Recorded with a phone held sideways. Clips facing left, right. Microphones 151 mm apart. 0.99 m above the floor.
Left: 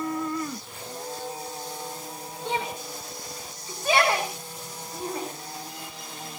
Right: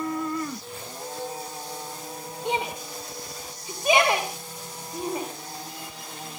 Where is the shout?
15° right (ahead or behind), 3 m.